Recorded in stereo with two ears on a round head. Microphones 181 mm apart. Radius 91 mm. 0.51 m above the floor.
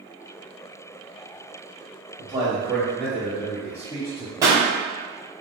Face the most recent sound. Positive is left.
turn(degrees=-15)  # may be behind; listen again after turning